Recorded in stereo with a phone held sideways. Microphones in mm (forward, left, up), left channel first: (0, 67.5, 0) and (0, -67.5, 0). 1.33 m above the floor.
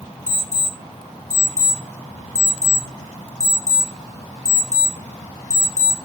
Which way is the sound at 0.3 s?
55° right (ahead or behind).